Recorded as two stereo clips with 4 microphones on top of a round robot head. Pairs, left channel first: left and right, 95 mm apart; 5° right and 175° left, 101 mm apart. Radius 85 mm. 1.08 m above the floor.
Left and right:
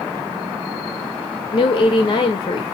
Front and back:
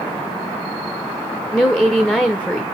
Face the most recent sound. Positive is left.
turn(degrees=75)